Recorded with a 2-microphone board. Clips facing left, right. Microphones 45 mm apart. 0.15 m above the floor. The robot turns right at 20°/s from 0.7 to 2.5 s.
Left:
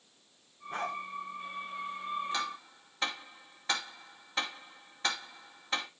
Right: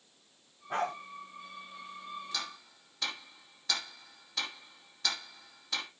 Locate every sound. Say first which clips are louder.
0.7 s a dog barking: right 3 dB; 60° right (ahead or behind), 7.5 m; by 0.9 s 55° right (ahead or behind), 7.5 m
2.3 s ticking: left 5 dB; 30° left (ahead or behind), 2.5 m